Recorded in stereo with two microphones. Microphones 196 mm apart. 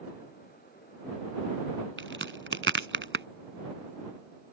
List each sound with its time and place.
2.0 s a crack: 85° right